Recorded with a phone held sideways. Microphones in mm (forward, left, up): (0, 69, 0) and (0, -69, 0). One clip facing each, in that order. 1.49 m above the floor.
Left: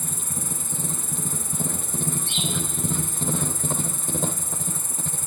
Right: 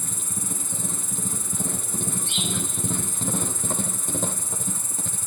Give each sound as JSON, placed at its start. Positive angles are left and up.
{"t": 0.0, "sound": "an insect", "side_deg": 50, "distance_m": 0.9}